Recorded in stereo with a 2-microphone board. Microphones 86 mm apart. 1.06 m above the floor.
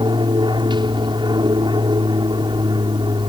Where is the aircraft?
65° right (ahead or behind).